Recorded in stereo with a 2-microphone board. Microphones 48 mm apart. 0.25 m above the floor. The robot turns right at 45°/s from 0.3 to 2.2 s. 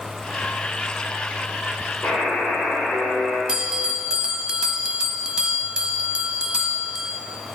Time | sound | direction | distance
2.0 | a buzzer | 40° left (ahead or behind) | 3.5 m
3.5 | a bell | 20° right (ahead or behind) | 0.7 m